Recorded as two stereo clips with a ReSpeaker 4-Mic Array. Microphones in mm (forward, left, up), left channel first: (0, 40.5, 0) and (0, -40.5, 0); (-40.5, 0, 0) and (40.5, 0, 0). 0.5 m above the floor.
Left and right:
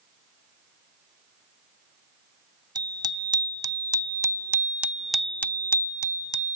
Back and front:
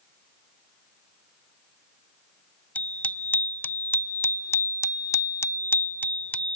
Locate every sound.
2.8 s a bicycle bell: 110° right; by 6.5 s 105° left